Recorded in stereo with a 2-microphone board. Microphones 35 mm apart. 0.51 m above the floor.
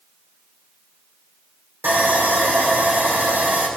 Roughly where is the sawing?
Right.